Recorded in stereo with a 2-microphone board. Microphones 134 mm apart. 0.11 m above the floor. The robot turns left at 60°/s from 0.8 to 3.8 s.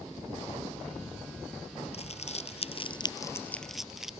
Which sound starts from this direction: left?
Crumpling, at 1.9 s.